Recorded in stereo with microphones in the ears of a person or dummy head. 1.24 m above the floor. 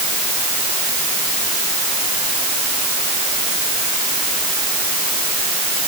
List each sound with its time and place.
Only background noise.